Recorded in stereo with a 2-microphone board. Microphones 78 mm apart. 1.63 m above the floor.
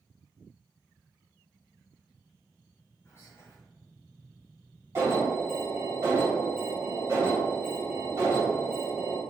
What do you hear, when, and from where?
3.0 s whispering: 30° left (ahead or behind), 0.7 m
5.0 s an alarm: 35° right (ahead or behind), 1.9 m